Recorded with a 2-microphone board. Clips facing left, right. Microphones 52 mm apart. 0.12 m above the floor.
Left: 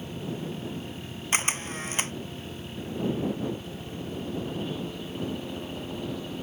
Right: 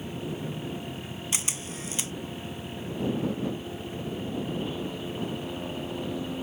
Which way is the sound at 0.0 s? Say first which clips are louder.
Even; 10° right (ahead or behind).